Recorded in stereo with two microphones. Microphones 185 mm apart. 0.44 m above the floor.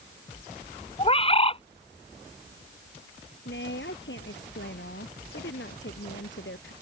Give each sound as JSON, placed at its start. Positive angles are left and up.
{"t": 1.0, "sound": "a bird", "side_deg": 30}
{"t": 3.5, "sound": "a woman speaking", "side_deg": 85}